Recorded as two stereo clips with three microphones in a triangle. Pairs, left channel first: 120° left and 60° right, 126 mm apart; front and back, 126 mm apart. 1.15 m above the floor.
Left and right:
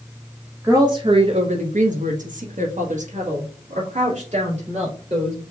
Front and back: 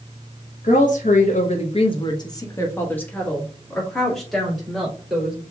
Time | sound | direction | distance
0.6 | a woman speaking | 10° left | 1.0 m